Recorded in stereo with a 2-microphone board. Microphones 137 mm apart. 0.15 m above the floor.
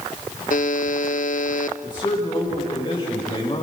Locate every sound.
0.5 s a buzzer: 65° left (ahead or behind), 1.0 m
1.8 s a man speaking: 30° left (ahead or behind), 10 m